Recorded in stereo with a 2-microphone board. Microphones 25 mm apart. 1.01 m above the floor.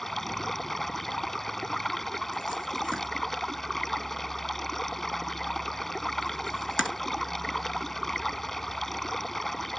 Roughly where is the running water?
Centre.